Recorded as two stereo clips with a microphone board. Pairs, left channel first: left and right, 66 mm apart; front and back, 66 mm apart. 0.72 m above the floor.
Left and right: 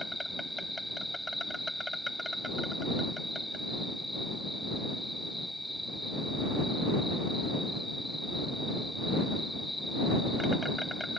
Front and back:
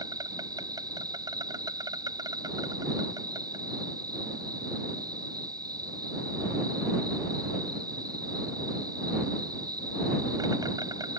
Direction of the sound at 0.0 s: Straight behind.